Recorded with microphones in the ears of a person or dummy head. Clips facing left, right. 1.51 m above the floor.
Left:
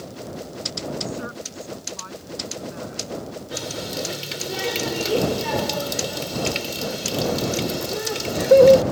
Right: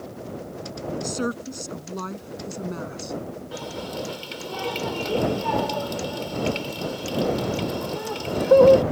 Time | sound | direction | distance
1.0 | a woman speaking | 60° right (ahead or behind) | ?
3.5 | a running tap | 30° left (ahead or behind) | ?